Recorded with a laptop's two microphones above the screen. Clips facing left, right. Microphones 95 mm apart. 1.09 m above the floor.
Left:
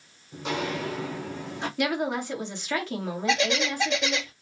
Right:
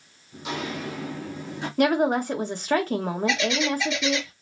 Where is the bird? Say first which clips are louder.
Left 1 dB; 40° left (ahead or behind), 2.5 m.